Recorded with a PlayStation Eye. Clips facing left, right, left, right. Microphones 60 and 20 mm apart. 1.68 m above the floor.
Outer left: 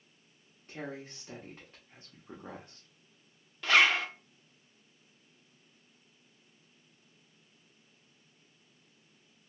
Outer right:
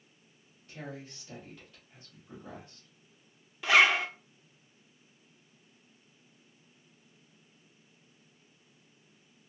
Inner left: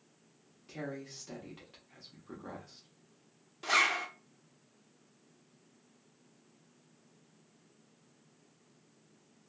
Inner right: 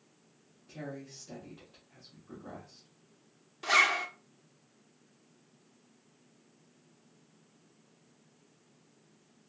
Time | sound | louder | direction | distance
0.7 | a woman speaking | outer left 2 dB, inner left 1 dB | 40° left (ahead or behind) | 0.9 m
3.6 | a zipper | outer right 2 dB, inner right 3 dB | 10° right (ahead or behind) | 0.5 m